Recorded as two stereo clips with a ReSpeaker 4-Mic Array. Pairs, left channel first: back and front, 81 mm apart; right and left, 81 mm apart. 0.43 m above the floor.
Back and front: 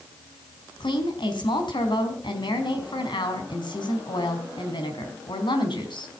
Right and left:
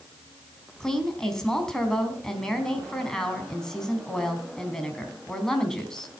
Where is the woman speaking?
170° right, 3.5 m.